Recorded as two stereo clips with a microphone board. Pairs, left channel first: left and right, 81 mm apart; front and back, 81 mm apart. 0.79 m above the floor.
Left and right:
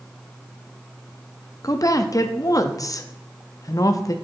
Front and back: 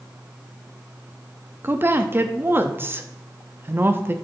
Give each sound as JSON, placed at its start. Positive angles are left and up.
{"t": 1.6, "sound": "a woman speaking", "azimuth_deg": 125, "distance_m": 0.7}